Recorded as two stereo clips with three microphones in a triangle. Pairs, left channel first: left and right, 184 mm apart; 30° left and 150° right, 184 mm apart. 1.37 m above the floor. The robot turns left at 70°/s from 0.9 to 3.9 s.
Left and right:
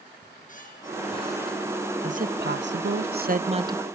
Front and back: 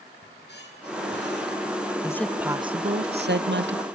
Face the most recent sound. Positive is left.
turn(degrees=-175)